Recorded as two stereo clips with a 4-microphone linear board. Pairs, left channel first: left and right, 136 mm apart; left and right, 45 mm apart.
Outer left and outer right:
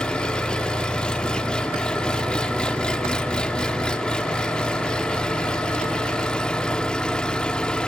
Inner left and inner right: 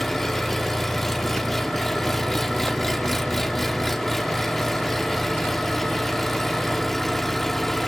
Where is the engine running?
5° left (ahead or behind), 1.2 m.